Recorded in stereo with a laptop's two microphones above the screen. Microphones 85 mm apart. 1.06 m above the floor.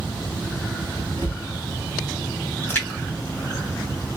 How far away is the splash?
About 0.8 m.